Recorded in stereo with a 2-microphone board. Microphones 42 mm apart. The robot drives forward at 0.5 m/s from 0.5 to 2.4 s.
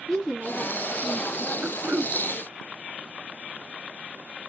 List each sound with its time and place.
0.1 s a woman speaking: 10° left (ahead or behind), 1.8 m
1.6 s throat clearing: 55° right (ahead or behind), 0.8 m; by 2.2 s 65° right (ahead or behind), 0.7 m